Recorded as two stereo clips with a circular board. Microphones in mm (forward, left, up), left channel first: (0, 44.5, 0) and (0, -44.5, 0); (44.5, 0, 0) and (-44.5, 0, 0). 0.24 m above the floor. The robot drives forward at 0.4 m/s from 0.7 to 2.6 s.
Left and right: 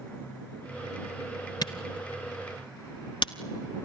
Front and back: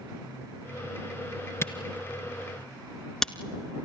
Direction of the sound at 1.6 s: 60° left.